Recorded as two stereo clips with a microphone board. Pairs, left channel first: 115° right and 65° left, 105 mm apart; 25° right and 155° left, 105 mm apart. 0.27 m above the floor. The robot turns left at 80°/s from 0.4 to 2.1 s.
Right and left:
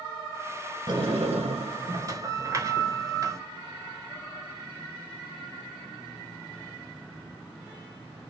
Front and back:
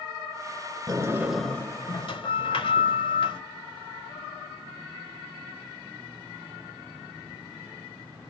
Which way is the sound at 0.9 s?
110° left.